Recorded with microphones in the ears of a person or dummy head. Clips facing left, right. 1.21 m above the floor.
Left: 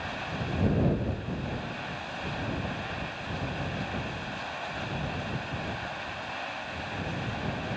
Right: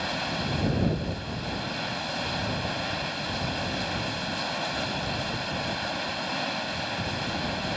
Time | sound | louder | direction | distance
0.0 | running water | right 4 dB | 55° right (ahead or behind) | ?